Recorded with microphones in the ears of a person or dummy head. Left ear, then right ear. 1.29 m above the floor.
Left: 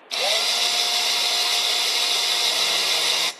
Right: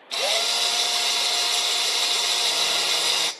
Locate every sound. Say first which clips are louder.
0.1 s a drill: left 1 dB; 5° left (ahead or behind), 0.9 m